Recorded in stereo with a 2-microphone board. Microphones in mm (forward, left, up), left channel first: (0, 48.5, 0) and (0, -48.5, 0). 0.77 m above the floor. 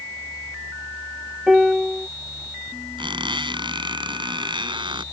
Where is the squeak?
60° right (ahead or behind).